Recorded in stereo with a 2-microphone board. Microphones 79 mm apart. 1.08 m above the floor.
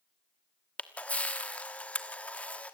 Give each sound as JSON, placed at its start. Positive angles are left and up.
{"t": 0.8, "sound": "a camera shutter", "side_deg": 15, "distance_m": 1.2}